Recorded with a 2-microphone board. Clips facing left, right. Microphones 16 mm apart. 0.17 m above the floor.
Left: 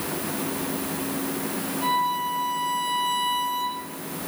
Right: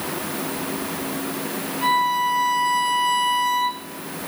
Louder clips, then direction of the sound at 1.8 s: Right 5 dB; 20° right (ahead or behind).